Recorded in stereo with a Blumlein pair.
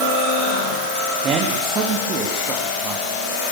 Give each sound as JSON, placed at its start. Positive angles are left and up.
{"t": 1.2, "sound": "a man speaking", "azimuth_deg": -25, "distance_m": 3.0}